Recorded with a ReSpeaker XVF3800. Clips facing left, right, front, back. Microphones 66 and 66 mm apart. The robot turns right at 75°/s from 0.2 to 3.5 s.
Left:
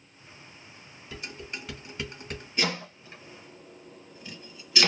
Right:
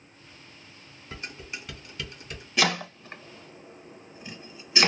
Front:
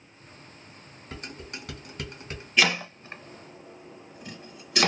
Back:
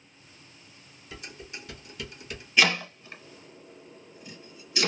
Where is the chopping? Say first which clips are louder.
Right 5 dB, even; 90° right, 0.7 m; by 4.9 s 20° right, 0.7 m.